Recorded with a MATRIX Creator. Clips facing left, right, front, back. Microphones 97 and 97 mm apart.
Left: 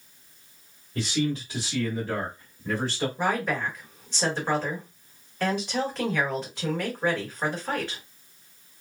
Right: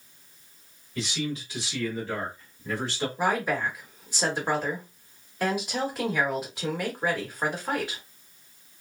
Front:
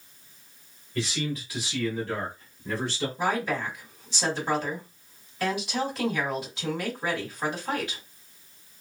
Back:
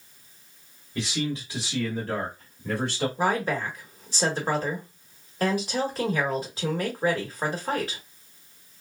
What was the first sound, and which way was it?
A man speaking, 105° left.